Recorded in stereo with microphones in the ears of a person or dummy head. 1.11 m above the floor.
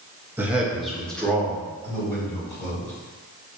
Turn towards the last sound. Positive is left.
turn(degrees=15)  # may be behind; listen again after turning